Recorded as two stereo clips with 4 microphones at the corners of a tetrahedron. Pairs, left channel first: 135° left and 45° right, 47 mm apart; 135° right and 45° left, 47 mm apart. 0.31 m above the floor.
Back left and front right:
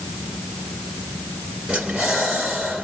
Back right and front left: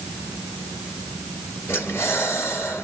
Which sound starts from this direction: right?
Breathing, at 1.7 s.